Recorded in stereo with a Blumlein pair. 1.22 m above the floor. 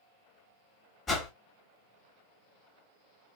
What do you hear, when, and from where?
1.1 s a whoosh: 20° left, 1.0 m